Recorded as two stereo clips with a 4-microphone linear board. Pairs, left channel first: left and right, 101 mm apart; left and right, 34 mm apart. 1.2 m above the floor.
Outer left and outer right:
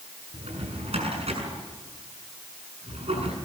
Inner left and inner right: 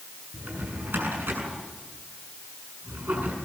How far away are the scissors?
No scissors in this recording.